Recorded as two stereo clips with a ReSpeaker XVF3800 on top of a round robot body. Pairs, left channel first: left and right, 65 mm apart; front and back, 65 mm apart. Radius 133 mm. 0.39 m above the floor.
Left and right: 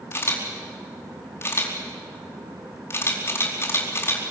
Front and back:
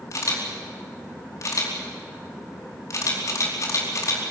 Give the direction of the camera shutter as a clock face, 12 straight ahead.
11 o'clock.